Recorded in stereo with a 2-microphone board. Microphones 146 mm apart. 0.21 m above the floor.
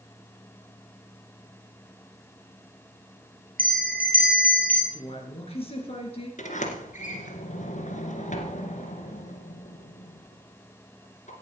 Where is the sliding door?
60° left (ahead or behind), 2.0 m.